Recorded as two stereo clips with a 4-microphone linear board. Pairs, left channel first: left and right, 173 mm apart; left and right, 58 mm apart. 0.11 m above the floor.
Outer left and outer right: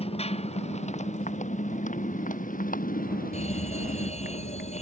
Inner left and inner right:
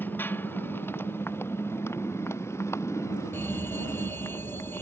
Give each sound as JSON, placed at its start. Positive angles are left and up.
{"t": 0.0, "sound": "a motorcycle", "side_deg": 35}
{"t": 3.3, "sound": "a fire alarm", "side_deg": 40}